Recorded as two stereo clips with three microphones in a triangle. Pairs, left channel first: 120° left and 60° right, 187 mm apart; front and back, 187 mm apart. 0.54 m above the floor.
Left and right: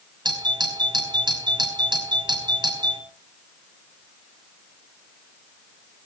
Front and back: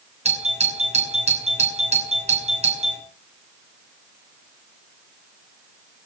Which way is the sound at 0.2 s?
125° right.